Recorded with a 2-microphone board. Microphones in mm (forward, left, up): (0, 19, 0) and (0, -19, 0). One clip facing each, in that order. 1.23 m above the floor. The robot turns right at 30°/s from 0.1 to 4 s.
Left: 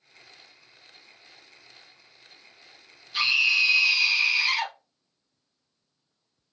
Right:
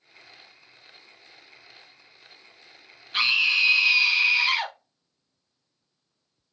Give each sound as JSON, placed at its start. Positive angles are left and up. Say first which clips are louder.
{"t": 3.1, "sound": "a scream", "louder": "right 1 dB", "side_deg": -45, "distance_m": 1.2}